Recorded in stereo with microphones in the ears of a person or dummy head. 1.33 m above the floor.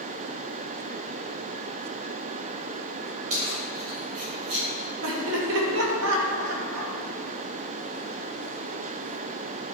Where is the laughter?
70° right (ahead or behind), 2 m.